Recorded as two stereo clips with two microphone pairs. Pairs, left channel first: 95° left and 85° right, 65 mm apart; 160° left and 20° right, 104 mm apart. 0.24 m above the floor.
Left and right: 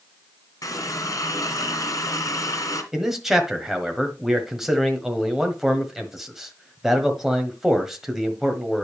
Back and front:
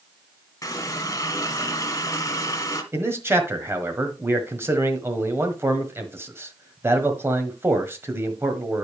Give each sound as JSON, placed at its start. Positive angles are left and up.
{"t": 0.6, "sound": "a running tap", "azimuth_deg": 105, "distance_m": 1.5}
{"t": 2.9, "sound": "a man speaking", "azimuth_deg": -10, "distance_m": 1.4}